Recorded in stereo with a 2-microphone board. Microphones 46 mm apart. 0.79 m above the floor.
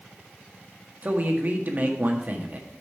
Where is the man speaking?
40° right (ahead or behind), 1.6 m.